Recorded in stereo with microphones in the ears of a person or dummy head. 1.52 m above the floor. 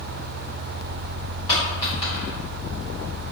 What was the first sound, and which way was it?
A dropped coin, 30° left (ahead or behind).